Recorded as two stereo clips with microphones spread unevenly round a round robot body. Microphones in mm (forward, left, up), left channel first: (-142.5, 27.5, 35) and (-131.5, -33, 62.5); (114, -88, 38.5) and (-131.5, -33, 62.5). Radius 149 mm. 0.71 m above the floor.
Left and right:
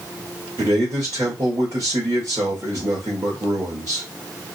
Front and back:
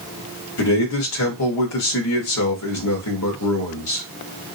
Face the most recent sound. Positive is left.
turn(degrees=-10)